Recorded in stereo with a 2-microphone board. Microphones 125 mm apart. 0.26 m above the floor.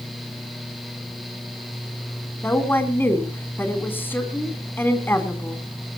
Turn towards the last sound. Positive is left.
turn(degrees=15)  # may be behind; listen again after turning